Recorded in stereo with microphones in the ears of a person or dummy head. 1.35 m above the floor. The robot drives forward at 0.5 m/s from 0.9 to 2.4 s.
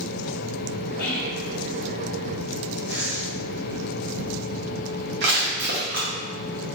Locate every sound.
1.0 s whispering: 60° left (ahead or behind), 0.8 m; by 1.5 s 45° left (ahead or behind), 0.9 m
2.9 s breathing: 60° right (ahead or behind), 1.2 m
5.2 s crushing: 50° right (ahead or behind), 1.2 m